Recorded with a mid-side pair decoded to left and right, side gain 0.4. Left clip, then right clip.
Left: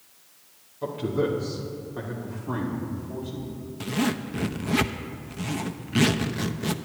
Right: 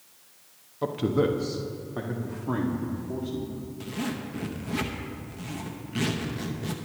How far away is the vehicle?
I don't hear a vehicle.